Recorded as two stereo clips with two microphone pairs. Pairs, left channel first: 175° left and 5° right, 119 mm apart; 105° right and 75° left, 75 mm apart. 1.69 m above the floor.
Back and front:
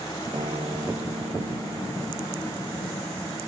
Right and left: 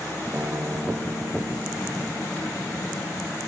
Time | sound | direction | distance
0.3 | a guitar | 25° left | ?